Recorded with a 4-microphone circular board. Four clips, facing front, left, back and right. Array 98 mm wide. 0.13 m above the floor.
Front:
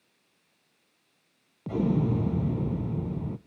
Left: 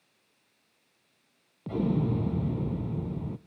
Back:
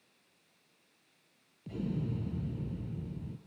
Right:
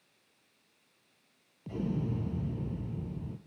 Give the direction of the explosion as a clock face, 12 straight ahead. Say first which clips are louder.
Left 7 dB, front 11 dB; 11 o'clock.